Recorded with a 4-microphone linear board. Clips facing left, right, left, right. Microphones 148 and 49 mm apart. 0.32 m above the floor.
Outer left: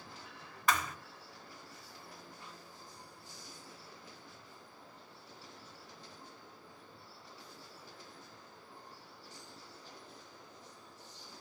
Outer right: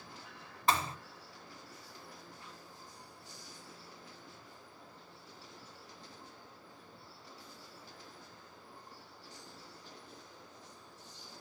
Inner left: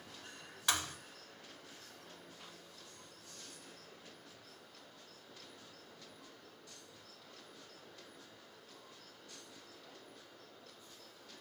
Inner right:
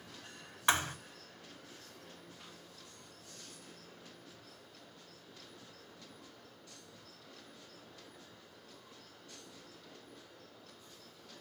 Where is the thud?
30° right (ahead or behind), 0.9 m.